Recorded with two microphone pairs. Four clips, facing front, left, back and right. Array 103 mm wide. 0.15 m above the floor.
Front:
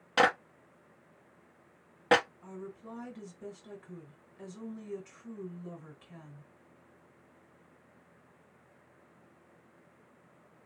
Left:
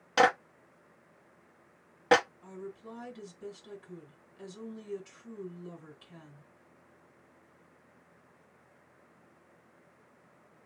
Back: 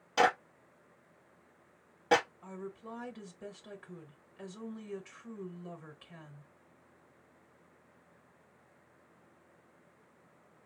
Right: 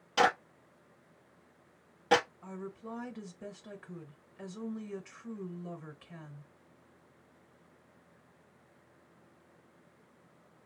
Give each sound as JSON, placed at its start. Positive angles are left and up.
{"t": 0.2, "sound": "a clap", "azimuth_deg": 40, "distance_m": 1.6}
{"t": 2.4, "sound": "a woman speaking", "azimuth_deg": -95, "distance_m": 1.6}